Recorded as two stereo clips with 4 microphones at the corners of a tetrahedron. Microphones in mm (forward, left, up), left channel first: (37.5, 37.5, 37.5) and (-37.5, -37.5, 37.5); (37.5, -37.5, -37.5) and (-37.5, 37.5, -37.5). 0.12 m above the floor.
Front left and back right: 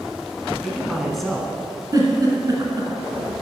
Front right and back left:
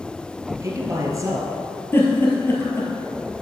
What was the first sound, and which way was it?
A man speaking, 130° left.